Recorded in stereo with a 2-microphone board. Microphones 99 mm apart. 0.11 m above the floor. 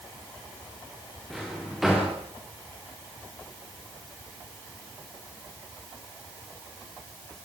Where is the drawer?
Centre (ahead or behind), 6.5 m.